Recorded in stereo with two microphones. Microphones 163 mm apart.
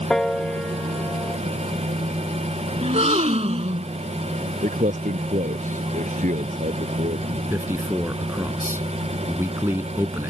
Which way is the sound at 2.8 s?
40° right (ahead or behind).